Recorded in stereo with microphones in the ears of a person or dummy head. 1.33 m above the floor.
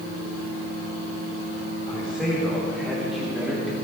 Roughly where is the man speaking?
Centre.